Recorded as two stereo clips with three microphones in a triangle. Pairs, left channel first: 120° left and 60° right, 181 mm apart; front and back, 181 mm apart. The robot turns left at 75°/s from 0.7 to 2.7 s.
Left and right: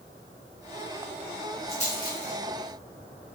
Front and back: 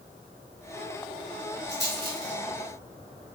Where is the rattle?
175° left, 1.1 m; by 2.4 s 125° left, 1.1 m.